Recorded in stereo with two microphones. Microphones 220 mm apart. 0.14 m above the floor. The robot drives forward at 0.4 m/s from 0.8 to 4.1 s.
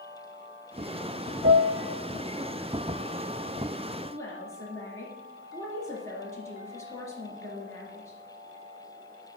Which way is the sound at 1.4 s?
60° right (ahead or behind).